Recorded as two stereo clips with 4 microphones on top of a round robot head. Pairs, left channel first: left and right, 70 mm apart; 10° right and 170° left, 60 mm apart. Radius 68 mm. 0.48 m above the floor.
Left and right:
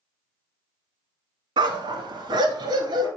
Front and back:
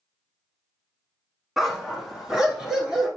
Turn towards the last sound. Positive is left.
turn(degrees=-105)